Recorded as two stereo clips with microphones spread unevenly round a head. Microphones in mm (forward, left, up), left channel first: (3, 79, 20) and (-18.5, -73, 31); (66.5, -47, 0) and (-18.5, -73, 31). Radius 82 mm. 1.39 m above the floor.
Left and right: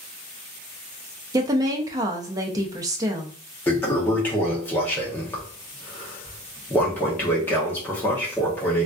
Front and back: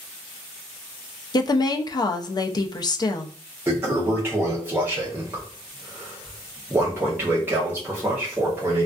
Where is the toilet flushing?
160° left, 0.7 m.